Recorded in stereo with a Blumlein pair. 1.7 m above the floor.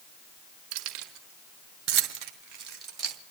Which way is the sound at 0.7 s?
40° right.